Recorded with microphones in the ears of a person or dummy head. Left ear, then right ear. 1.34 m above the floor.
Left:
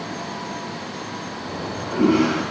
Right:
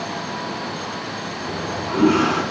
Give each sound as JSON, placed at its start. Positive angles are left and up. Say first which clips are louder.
{"t": 1.5, "sound": "a toilet flushing", "louder": "right 3 dB", "side_deg": -25, "distance_m": 3.0}